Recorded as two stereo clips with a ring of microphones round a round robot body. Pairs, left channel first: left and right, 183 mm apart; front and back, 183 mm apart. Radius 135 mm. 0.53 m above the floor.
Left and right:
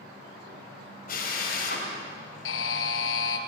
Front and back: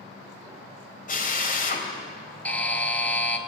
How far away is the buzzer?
About 1.9 m.